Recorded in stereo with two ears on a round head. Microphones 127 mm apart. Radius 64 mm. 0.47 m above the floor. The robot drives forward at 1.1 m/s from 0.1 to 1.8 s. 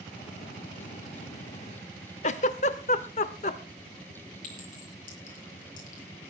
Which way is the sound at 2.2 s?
50° left (ahead or behind).